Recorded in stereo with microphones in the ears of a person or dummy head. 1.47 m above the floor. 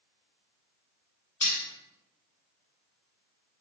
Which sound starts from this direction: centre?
Cutlery clinking, at 1.4 s.